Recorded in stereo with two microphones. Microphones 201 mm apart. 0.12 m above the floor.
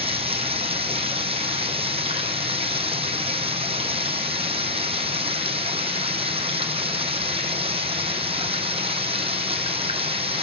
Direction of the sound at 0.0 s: 30° right (ahead or behind).